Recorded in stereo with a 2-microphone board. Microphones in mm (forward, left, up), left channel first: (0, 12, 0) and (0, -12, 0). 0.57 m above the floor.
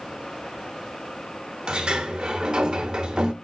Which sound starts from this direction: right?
A sliding door, at 1.7 s.